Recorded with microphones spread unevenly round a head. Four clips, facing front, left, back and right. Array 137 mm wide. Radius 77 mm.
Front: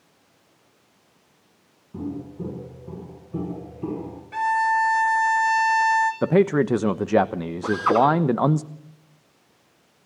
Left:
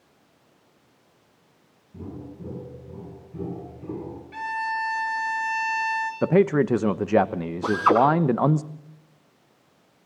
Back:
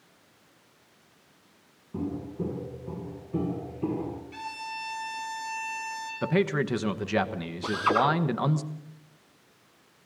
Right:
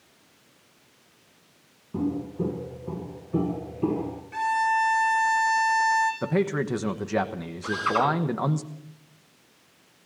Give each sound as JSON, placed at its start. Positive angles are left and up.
{"t": 1.9, "sound": "footsteps", "azimuth_deg": -100, "distance_m": 9.0}
{"t": 4.3, "sound": "a violin", "azimuth_deg": -5, "distance_m": 5.5}
{"t": 6.2, "sound": "a man speaking", "azimuth_deg": 40, "distance_m": 1.0}
{"t": 7.6, "sound": "a drill", "azimuth_deg": 75, "distance_m": 10.0}